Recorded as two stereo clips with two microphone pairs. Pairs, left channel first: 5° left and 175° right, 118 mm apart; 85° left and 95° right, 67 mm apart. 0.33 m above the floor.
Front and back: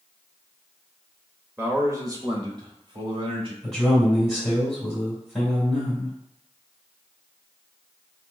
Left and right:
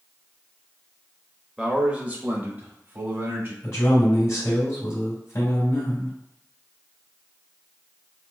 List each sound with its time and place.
1.6 s a man speaking: 150° right, 0.9 m; by 3.5 s 145° right, 1.6 m
3.6 s a man speaking: 100° left, 1.9 m